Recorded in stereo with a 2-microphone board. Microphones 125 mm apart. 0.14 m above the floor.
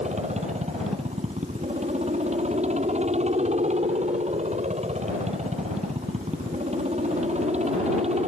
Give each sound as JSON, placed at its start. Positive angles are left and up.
{"t": 0.0, "sound": "a helicopter", "side_deg": -65}